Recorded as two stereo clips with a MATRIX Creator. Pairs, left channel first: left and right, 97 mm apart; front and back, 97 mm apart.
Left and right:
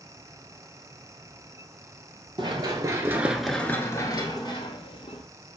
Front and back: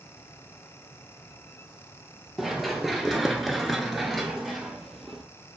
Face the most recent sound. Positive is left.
turn(degrees=90)